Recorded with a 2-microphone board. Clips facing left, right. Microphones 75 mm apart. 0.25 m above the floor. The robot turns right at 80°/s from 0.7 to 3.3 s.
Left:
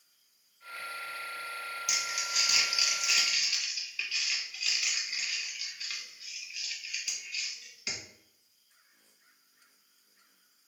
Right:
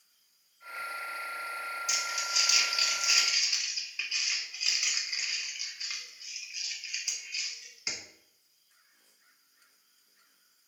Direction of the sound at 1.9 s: 65° left (ahead or behind).